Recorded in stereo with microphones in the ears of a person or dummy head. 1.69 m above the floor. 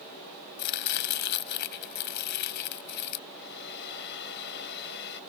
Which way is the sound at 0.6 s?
50° left (ahead or behind).